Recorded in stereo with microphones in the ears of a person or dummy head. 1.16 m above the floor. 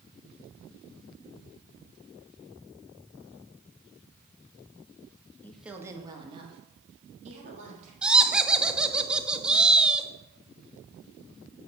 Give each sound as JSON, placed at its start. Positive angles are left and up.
{"t": 5.4, "sound": "a woman speaking", "side_deg": 10, "distance_m": 0.8}
{"t": 8.0, "sound": "laughter", "side_deg": -5, "distance_m": 0.7}